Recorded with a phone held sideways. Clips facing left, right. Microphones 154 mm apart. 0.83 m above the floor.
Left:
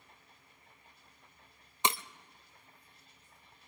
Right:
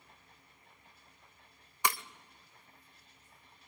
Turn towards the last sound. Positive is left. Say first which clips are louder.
# left 1 dB
turn(degrees=20)  # may be behind; listen again after turning